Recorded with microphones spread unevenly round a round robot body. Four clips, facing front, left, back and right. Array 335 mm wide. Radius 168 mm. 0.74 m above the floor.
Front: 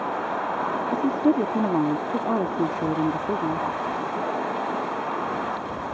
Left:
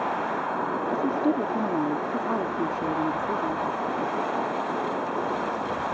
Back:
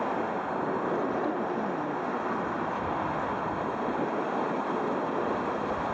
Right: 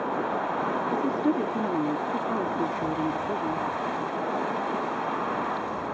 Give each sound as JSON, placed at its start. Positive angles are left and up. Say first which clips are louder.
{"t": 0.9, "sound": "a woman speaking", "louder": "left 2 dB, front 7 dB", "azimuth_deg": 5}